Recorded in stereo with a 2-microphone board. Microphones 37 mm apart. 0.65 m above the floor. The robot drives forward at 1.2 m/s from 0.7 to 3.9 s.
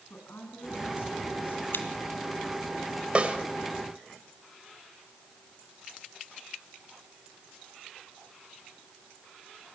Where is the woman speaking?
65° left (ahead or behind), 7.5 m; by 1.6 s 60° left (ahead or behind), 8 m.